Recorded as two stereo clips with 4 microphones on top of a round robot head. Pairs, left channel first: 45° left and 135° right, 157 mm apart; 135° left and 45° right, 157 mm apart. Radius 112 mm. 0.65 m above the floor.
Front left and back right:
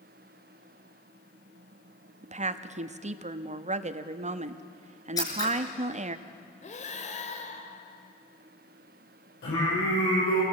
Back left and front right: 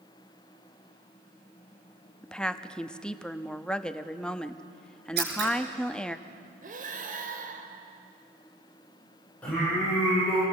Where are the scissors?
25° right, 4.5 m.